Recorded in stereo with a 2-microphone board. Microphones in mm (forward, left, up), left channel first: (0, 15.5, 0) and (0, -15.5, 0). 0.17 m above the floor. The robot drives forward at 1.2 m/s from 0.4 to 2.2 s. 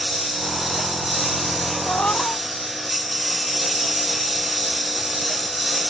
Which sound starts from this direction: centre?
A lawn mower, at 0.0 s.